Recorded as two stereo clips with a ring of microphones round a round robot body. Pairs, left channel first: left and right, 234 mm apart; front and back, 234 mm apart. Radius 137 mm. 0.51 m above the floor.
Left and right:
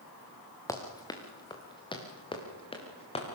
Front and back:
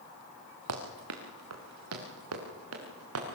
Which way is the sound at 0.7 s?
165° left.